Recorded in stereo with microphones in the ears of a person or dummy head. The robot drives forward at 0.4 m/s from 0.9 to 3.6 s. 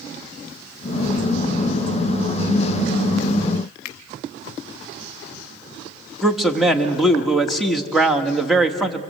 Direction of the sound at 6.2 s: Centre (ahead or behind).